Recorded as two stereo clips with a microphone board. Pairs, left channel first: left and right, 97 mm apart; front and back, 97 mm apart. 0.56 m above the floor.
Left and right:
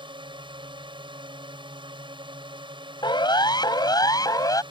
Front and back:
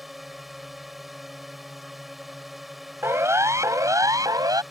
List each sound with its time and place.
0.0 s a drone: 90° right
3.0 s a siren: 120° left; by 4.6 s 135° left